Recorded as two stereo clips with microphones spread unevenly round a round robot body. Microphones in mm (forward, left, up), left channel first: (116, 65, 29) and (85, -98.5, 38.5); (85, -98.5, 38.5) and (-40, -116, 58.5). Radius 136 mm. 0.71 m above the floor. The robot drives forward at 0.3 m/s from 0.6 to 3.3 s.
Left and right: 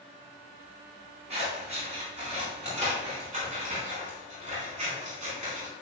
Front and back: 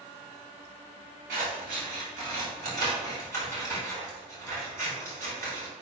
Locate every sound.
1.3 s scissors: 170° right, 2.5 m